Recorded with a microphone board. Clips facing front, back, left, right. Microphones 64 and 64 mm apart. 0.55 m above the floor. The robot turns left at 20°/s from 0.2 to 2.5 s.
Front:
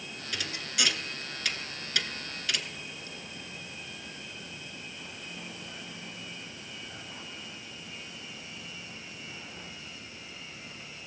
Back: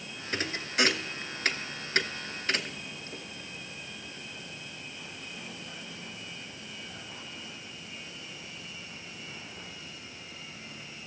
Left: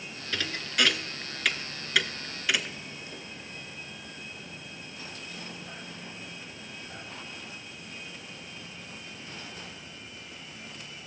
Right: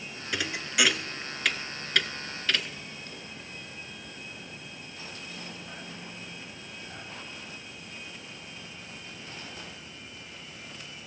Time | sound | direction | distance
0.3 | a thud | 155° right | 0.6 m